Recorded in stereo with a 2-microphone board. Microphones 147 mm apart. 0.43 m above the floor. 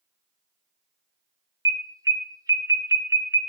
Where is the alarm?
25° right (ahead or behind), 1.1 m.